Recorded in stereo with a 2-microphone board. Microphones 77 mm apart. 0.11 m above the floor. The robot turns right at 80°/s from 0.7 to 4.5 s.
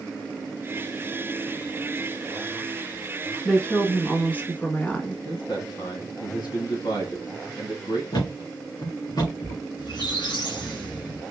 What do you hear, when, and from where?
3.5 s a woman speaking: 10° left (ahead or behind), 1.1 m; by 5.2 s 20° left (ahead or behind), 1.1 m
5.2 s a man speaking: 65° left (ahead or behind), 2.5 m
8.1 s a thud: 65° left (ahead or behind), 3 m
9.8 s a squeak: 75° left (ahead or behind), 2.5 m